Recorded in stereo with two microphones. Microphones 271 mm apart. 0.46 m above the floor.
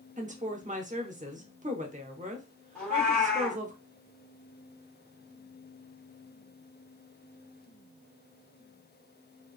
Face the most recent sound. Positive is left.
turn(degrees=5)  # may be behind; listen again after turning